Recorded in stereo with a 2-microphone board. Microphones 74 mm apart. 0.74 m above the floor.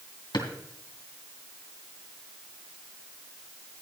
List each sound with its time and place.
0.3 s a drawer: 85° left, 2 m